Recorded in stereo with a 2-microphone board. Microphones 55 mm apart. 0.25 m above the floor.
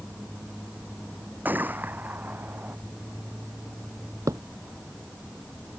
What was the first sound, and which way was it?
A gunshot, 35° right (ahead or behind).